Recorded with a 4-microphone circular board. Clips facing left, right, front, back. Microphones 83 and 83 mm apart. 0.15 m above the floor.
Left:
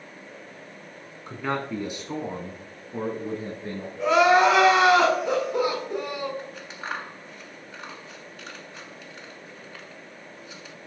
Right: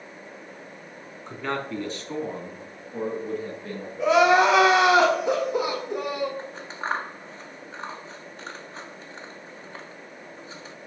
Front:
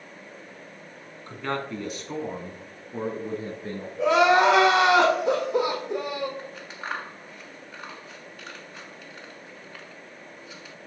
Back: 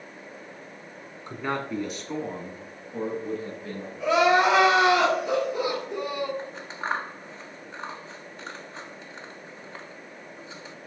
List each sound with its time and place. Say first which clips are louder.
1.3 s a man speaking: left 1 dB, back 1 dB; 170° left, 1.2 m; by 3.9 s 35° left, 1.8 m
4.0 s crying: even, front 2 dB; 5° right, 4 m
6.4 s scissors: right 3 dB, back 3 dB; 130° right, 0.5 m